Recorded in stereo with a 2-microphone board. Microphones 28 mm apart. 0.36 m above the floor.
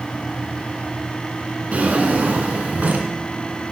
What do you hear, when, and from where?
1.7 s a drawer: 60° right (ahead or behind), 2.5 m